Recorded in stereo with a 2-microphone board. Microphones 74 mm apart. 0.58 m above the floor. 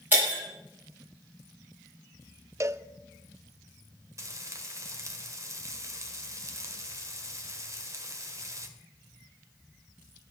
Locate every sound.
0.1 s breaking glass: 25° right (ahead or behind), 6 m
2.6 s a cowbell: 35° right (ahead or behind), 0.5 m
4.2 s frying: 40° right (ahead or behind), 1.6 m